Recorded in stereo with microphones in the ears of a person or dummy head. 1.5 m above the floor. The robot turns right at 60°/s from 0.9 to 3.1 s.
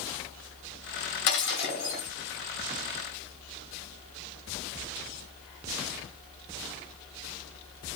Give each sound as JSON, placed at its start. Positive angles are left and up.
{"t": 1.3, "sound": "breaking glass", "azimuth_deg": 85, "distance_m": 1.8}